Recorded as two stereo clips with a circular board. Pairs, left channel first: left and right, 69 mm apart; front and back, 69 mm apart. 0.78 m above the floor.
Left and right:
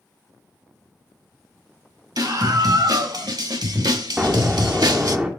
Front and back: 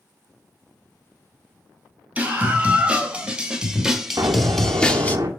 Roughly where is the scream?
Right.